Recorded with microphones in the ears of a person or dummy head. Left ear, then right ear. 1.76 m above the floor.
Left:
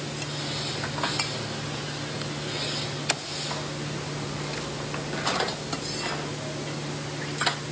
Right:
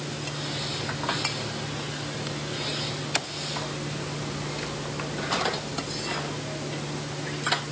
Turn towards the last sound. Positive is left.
No sound to turn to.